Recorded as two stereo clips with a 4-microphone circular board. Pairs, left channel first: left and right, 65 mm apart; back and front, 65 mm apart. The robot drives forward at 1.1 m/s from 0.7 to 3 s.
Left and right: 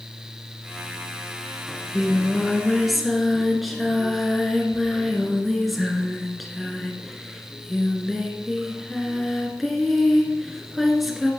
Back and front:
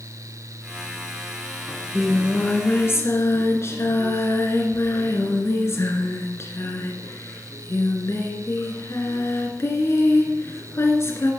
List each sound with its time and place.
1.7 s singing: straight ahead, 1.1 m; by 11.3 s straight behind, 1.5 m